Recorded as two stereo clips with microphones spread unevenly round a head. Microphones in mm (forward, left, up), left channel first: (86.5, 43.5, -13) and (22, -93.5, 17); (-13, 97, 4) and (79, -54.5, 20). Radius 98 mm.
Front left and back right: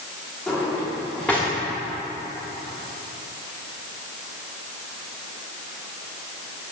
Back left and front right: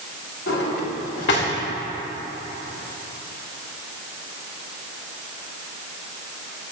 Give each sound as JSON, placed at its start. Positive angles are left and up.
{"t": 0.5, "sound": "a drawer", "azimuth_deg": 155, "distance_m": 2.5}